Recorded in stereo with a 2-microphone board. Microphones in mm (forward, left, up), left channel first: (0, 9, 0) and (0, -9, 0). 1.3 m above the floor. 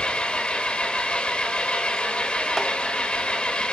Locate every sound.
0.0 s an engine running: 75° left (ahead or behind), 2.5 m